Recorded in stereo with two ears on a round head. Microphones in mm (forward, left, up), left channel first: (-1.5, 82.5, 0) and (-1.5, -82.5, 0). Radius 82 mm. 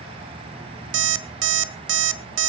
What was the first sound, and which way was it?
An alarm clock, 70° right (ahead or behind).